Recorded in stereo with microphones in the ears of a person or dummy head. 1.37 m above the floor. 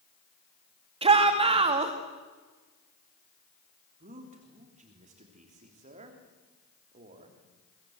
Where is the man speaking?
40° right (ahead or behind), 3.5 m.